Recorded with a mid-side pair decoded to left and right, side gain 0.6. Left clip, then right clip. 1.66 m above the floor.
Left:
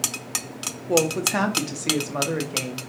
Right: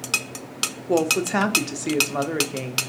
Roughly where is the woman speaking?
Ahead.